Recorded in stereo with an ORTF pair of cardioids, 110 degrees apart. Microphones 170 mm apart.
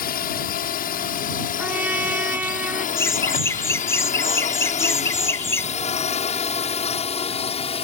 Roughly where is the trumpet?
Ahead.